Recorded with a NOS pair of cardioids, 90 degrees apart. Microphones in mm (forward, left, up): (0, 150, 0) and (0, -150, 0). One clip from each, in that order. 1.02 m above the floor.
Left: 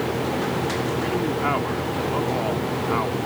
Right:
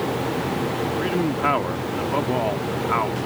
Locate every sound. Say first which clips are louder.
1.0 s a man speaking: right 3 dB; 30° right